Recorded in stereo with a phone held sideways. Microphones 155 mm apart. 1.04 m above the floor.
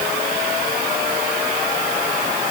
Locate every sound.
Only background noise.